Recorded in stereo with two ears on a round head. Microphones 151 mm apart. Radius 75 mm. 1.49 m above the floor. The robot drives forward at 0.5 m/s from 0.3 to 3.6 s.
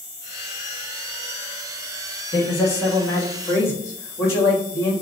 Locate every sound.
2.3 s a man speaking: 20° left (ahead or behind), 2 m; by 4.9 s 15° left (ahead or behind), 2.5 m